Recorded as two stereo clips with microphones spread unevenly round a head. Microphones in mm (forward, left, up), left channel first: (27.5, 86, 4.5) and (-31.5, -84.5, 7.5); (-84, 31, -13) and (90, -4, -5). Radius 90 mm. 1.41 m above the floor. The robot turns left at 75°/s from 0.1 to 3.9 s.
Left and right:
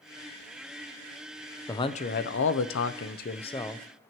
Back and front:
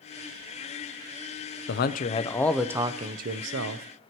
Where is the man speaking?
145° left, 0.6 m; by 3.9 s 20° right, 0.6 m.